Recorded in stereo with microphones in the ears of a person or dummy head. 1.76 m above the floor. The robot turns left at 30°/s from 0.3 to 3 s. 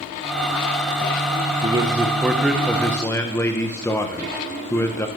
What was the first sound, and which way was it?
A man speaking, 150° right.